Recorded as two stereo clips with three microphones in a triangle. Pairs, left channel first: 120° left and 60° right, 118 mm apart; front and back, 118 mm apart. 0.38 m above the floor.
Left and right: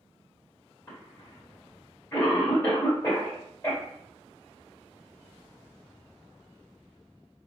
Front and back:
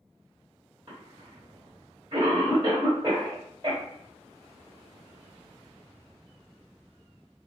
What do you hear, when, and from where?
0.9 s a cough: 170° left, 1.5 m